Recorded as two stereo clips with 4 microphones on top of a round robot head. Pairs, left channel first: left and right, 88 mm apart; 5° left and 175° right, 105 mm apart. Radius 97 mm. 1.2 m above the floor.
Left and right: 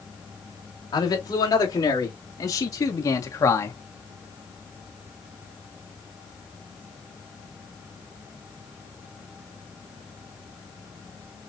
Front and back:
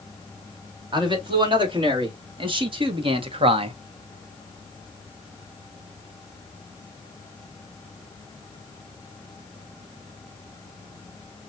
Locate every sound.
0.9 s a man speaking: 140° left, 3.5 m; by 3.8 s 150° left, 1.0 m